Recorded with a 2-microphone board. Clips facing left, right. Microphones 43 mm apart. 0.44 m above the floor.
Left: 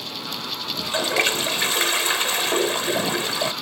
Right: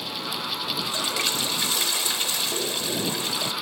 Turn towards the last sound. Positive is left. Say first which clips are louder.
# left 8 dB
turn(degrees=45)  # may be behind; listen again after turning